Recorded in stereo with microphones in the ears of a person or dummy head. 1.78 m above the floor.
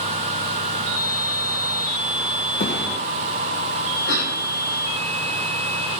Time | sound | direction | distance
2.6 | a thud | 45° left (ahead or behind) | 1.8 m
4.1 | a cough | 90° left | 4 m